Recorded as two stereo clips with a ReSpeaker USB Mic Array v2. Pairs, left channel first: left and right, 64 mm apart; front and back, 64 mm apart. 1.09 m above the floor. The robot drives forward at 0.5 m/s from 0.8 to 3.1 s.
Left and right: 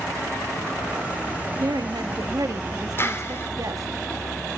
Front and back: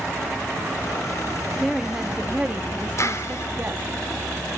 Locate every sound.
1.6 s a woman speaking: 95° right, 1.7 m; by 3.9 s 120° right, 2.0 m
3.0 s a clap: 40° left, 3 m